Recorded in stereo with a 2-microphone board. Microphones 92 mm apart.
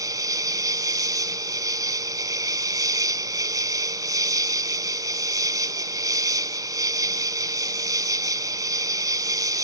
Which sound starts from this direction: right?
An insect, at 0.0 s.